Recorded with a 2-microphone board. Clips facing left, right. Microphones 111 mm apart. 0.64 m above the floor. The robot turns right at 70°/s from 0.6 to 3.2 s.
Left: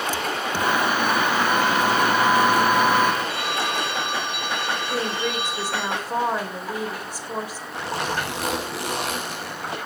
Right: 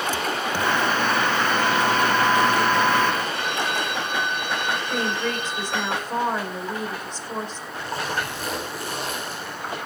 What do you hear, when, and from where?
3.3 s a phone ringing: 85° left, 7.5 m
4.9 s a woman speaking: 10° left (ahead or behind), 2.5 m
7.7 s a zipper: 80° left, 6 m